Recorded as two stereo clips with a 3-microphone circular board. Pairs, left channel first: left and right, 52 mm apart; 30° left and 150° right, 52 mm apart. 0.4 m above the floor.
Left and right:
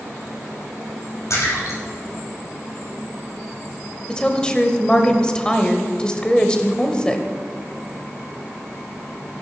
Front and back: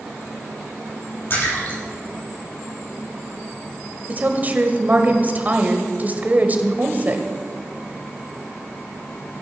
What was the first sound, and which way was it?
A splash, 75° left.